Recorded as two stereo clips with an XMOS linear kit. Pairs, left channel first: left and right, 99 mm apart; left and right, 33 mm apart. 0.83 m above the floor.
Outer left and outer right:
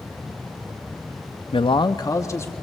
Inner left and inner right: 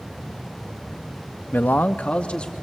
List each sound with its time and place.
1.5 s a man speaking: 60° left (ahead or behind), 0.6 m; by 2.5 s 25° left (ahead or behind), 1.5 m